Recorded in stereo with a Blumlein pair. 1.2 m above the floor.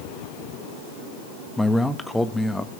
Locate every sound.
1.6 s a man speaking: 5° left, 1.9 m